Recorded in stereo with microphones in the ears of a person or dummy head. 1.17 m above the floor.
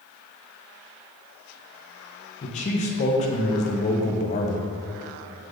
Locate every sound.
2.4 s a man speaking: 35° left (ahead or behind), 0.8 m